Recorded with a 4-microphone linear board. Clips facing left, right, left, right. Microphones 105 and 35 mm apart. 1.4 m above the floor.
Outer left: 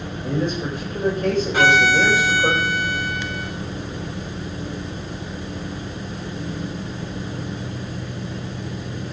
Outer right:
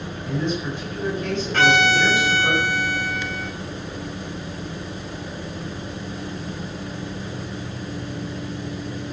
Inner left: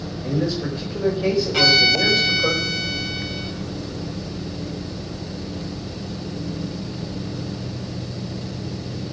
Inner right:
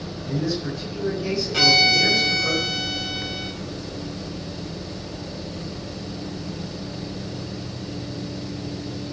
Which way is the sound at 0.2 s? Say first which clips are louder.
Outer left 2 dB, inner left 3 dB; 45° left (ahead or behind).